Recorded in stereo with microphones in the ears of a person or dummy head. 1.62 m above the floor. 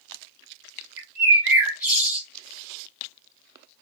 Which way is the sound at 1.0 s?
5° right (ahead or behind).